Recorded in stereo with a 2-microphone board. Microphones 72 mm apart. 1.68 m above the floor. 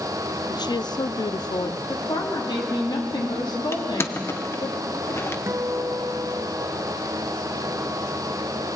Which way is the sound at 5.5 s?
35° right (ahead or behind).